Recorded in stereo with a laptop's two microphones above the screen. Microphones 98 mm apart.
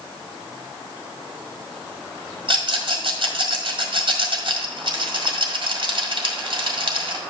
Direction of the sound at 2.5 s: 65° right (ahead or behind).